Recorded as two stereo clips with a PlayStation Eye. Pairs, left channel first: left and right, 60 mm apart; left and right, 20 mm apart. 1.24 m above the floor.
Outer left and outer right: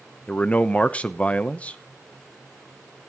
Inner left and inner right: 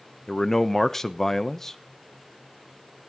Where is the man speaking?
20° left (ahead or behind), 0.8 m.